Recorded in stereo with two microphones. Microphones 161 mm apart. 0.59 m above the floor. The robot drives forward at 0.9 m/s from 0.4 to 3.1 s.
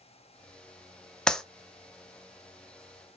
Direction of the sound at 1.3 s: 5° left (ahead or behind).